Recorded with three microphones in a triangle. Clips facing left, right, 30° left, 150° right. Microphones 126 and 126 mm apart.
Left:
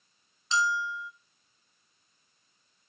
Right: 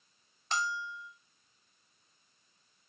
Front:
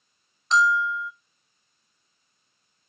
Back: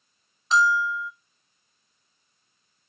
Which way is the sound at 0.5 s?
60° right.